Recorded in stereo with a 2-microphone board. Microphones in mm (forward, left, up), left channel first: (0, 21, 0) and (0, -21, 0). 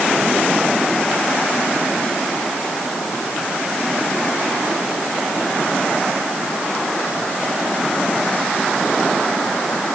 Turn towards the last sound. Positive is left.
No sound to turn to.